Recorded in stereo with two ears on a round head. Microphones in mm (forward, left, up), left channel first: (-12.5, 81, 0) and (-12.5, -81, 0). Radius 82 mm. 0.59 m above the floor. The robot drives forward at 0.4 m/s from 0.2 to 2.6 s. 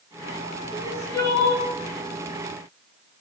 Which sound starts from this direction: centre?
Crying, at 0.7 s.